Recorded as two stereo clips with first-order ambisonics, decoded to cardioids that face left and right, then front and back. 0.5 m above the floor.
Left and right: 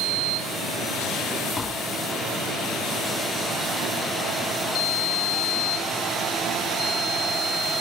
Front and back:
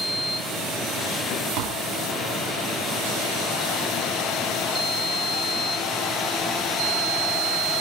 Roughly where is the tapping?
Behind.